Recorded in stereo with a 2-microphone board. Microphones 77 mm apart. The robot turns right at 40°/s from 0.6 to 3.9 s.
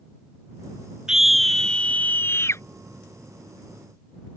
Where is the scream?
10° right; by 2.6 s 50° left.